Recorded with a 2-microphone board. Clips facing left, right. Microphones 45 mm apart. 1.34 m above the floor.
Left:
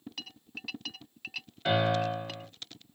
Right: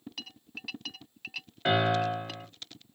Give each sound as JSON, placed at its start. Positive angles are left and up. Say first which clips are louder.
{"t": 1.6, "sound": "a piano", "louder": "right 1 dB", "side_deg": -30, "distance_m": 1.5}